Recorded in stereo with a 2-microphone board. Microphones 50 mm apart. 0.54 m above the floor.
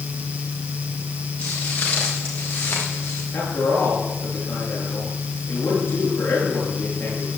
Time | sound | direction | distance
1.4 | footsteps | 30° left (ahead or behind) | 7 m
3.3 | a man speaking | 40° left (ahead or behind) | 9 m